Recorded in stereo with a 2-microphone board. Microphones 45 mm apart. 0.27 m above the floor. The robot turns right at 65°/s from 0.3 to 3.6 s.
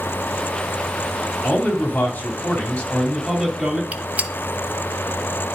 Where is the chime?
I don't hear a chime.